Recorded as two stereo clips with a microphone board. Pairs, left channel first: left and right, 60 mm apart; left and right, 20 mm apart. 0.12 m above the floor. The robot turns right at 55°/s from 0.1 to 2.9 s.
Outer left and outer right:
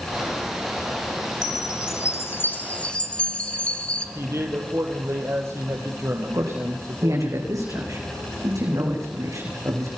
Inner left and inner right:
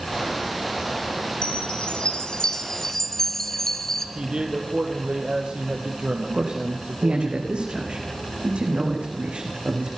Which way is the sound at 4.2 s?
50° right (ahead or behind).